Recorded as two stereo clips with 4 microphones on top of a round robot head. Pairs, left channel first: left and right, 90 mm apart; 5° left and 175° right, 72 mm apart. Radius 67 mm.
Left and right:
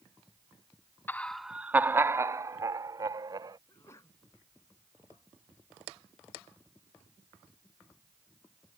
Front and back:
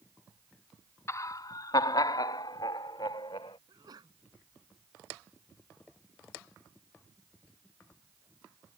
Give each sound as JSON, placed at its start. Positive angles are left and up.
{"t": 1.1, "sound": "laughter", "azimuth_deg": 30}
{"t": 3.7, "sound": "a sneeze", "azimuth_deg": 155}